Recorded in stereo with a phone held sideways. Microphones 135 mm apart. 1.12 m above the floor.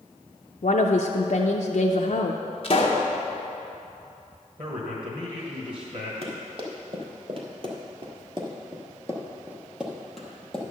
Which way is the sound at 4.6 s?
45° right (ahead or behind).